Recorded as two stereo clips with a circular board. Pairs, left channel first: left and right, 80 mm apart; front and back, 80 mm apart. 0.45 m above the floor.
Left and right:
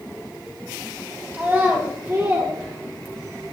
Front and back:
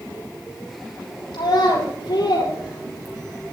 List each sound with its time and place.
1.3 s a child speaking: 30° right, 6.5 m; by 3.5 s 40° right, 6.5 m